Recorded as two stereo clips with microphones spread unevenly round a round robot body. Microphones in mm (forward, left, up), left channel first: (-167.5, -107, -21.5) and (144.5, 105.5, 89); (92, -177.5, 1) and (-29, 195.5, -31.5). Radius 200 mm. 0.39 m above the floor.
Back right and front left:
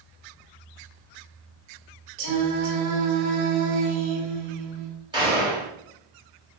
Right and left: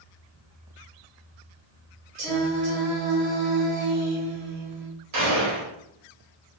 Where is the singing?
55° left, 1.4 m.